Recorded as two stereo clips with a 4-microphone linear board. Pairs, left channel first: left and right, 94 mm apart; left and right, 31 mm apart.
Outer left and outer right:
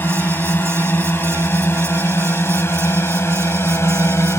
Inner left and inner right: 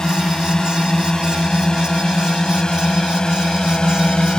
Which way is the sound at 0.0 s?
20° left (ahead or behind).